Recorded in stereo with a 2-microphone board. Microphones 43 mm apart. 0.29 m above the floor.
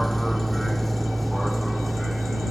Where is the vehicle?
5° left (ahead or behind); by 2.5 s centre (ahead or behind).